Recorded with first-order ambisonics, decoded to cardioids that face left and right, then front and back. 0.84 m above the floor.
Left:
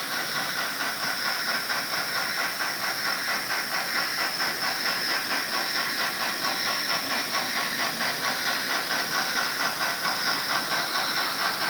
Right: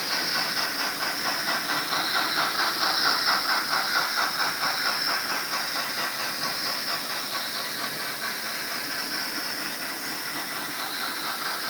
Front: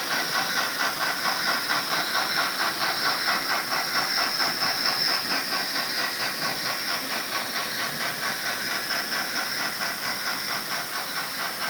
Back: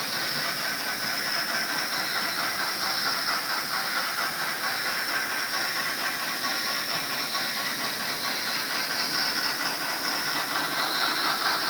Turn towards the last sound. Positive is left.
No sound to turn to.